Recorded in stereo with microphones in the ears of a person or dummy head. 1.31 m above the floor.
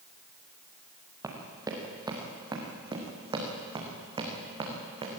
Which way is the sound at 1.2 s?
10° right (ahead or behind).